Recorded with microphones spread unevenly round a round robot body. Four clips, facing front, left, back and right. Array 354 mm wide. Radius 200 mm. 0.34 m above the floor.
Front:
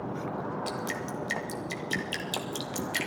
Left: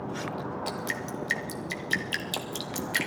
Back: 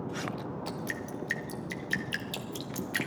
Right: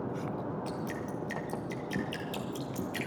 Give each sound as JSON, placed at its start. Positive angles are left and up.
{"t": 0.7, "sound": "dripping", "azimuth_deg": 135, "distance_m": 1.0}